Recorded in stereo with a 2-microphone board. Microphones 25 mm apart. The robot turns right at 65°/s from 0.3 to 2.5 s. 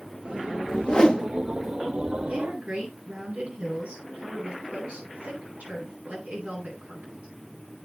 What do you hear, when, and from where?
0.7 s a whoosh: 130° left, 2 m; by 1.3 s 165° left, 2 m
2.3 s a woman speaking: 90° right, 9 m; by 7.3 s 75° right (ahead or behind), 9 m